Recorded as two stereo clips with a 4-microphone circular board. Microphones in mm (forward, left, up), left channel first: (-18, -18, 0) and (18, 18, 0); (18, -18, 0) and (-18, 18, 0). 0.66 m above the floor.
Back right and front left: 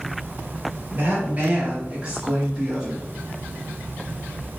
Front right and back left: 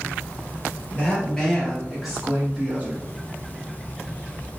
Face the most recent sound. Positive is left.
turn(degrees=130)